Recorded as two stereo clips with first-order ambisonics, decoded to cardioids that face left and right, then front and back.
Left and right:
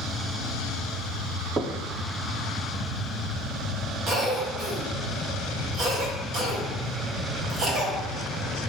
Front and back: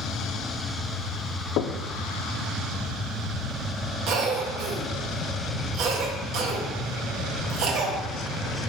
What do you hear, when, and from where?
1.6 s knocking: 25° right, 0.5 m
4.1 s a cough: 150° right, 1.8 m